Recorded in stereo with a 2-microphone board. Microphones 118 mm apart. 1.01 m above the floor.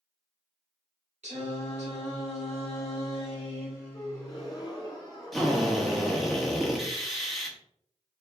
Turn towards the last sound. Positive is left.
turn(degrees=0)  # may be behind; listen again after turning